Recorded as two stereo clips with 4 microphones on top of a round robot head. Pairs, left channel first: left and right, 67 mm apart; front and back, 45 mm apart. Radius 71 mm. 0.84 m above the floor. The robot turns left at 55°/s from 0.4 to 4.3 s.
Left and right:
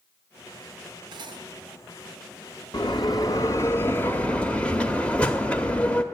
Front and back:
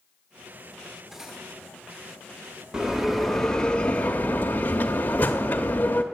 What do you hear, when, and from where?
1.1 s cutlery clinking: 90° right, 1.3 m; by 1.4 s 110° right, 1.3 m
2.7 s a bell: 115° left, 0.6 m; by 6.0 s 30° left, 0.6 m